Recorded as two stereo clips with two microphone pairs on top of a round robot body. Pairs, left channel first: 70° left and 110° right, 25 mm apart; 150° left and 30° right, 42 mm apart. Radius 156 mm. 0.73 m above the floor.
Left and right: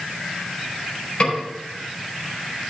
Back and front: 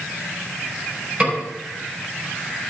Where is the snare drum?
20° left, 4.5 m.